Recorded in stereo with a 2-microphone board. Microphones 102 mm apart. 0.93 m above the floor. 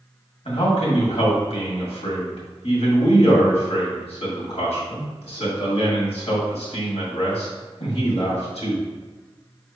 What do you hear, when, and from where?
0.5 s a man speaking: 75° left (ahead or behind), 1.9 m